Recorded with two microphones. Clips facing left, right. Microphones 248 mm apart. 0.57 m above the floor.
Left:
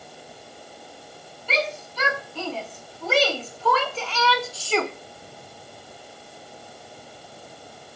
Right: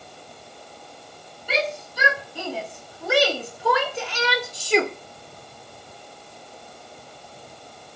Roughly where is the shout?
Centre.